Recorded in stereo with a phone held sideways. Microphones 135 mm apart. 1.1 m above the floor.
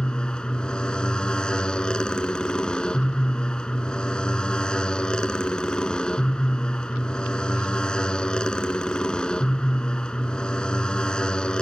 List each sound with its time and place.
0.0 s a motorcycle: 5° left (ahead or behind)